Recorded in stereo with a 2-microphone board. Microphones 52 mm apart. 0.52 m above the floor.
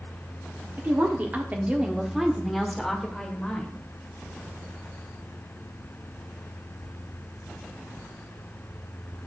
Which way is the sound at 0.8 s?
45° right (ahead or behind).